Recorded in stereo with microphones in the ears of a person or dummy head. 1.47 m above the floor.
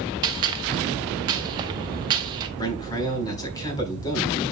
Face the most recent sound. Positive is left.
turn(degrees=20)  # may be behind; listen again after turning